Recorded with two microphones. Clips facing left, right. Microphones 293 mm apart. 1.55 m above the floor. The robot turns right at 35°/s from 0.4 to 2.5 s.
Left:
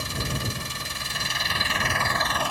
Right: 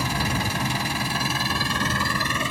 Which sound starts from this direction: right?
An engine running, at 0.0 s.